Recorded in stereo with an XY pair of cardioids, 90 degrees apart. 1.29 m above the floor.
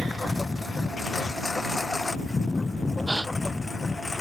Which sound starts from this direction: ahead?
A gasp, at 3.1 s.